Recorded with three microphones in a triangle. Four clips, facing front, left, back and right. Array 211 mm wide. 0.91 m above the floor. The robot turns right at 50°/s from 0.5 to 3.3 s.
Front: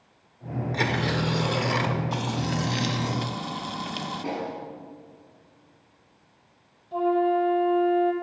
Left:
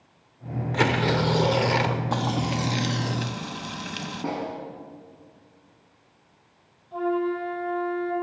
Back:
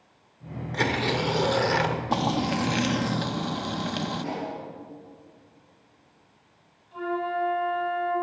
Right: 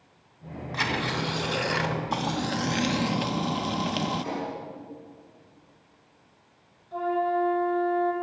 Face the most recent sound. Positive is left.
turn(degrees=-5)